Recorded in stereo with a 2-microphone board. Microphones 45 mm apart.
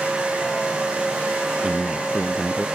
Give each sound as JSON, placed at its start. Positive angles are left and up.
{"t": 1.6, "sound": "a man speaking", "side_deg": -15}